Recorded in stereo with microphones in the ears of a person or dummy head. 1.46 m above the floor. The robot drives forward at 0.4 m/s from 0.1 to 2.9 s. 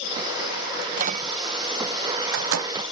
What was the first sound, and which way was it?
A microwave, 50° right (ahead or behind).